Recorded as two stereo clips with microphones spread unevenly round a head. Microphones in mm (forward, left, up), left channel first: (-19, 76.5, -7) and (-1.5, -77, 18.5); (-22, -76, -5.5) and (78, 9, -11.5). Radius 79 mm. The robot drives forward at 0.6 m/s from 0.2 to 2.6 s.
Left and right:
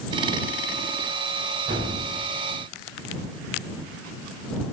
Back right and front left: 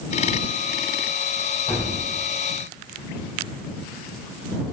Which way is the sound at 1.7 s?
95° right.